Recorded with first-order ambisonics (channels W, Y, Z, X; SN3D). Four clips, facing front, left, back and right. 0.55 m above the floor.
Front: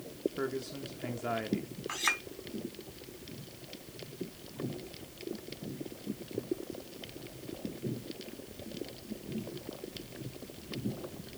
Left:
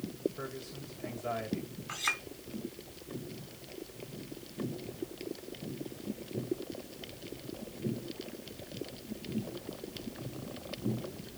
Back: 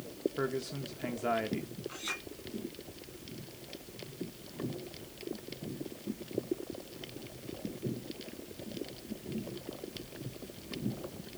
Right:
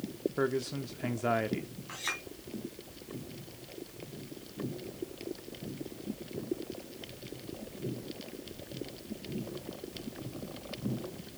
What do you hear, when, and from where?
0.4 s a man speaking: 105° right, 0.8 m
1.9 s a clink: 10° left, 3.5 m